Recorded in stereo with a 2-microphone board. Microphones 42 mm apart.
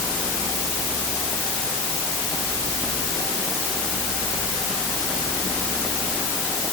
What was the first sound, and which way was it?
Only background noise.